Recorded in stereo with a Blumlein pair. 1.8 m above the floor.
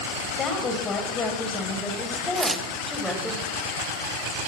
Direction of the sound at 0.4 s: 25° left.